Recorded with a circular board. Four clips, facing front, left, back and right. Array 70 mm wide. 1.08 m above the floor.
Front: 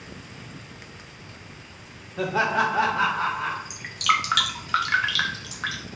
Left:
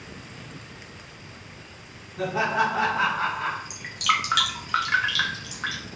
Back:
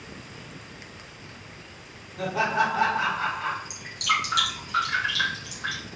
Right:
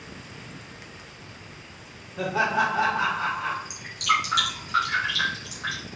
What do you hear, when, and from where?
2.2 s laughter: 20° right, 1.0 m; by 3.6 s 60° left, 1.1 m
3.7 s dripping: 30° left, 0.7 m